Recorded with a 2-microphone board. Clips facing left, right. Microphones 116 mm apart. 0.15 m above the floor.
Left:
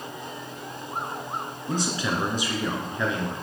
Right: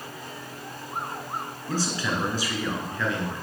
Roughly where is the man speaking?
Centre.